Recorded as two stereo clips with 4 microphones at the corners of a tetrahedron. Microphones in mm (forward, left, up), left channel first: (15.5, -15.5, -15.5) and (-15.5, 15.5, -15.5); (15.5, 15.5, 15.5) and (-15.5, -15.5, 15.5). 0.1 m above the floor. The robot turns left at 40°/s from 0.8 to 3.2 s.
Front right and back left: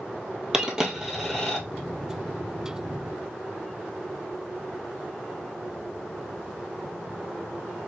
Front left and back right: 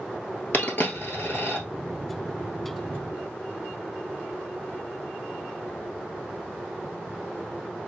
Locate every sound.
0.5 s a dropped coin: 60° left, 1.1 m; by 1.6 s 25° left, 1.1 m